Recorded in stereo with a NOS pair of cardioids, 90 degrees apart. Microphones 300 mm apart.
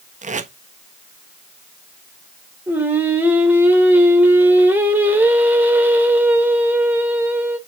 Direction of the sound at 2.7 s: 5° right.